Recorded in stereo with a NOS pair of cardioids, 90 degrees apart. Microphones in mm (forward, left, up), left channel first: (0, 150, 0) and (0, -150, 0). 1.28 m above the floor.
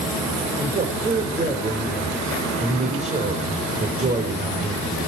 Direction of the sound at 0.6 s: 25° right.